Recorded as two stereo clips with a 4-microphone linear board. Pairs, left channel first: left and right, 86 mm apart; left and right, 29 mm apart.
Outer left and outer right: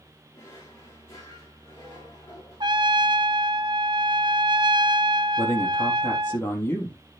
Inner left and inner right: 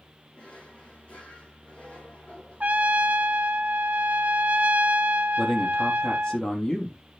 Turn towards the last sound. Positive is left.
turn(degrees=25)  # may be behind; listen again after turning